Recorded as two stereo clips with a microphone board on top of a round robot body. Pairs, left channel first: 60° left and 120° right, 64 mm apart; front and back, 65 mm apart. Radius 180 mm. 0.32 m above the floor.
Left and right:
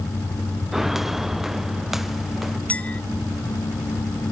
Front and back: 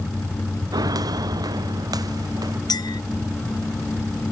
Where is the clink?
10° right.